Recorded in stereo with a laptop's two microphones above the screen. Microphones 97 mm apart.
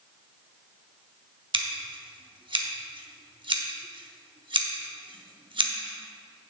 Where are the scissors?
55° right (ahead or behind), 0.9 m.